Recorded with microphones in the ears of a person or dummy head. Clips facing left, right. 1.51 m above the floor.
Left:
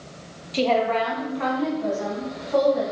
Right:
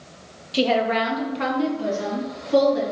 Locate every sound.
0.5 s a woman speaking: 10° right (ahead or behind), 0.6 m; by 2.8 s 45° right (ahead or behind), 1.7 m